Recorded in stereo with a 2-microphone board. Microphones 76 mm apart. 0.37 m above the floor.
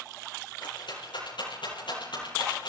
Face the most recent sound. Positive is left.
turn(degrees=80)